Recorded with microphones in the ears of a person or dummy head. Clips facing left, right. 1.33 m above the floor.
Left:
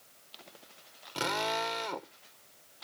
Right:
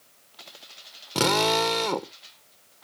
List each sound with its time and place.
1.1 s a drill: 70° right (ahead or behind)